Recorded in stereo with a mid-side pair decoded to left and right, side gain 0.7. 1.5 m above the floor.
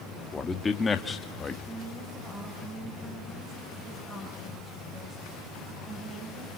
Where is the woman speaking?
20° right, 6.5 m.